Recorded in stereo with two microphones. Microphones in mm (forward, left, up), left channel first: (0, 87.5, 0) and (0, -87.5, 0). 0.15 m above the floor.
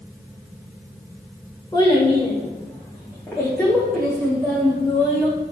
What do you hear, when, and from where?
1.7 s a child speaking: 20° left (ahead or behind), 5.5 m; by 5.3 s 5° right (ahead or behind), 6.5 m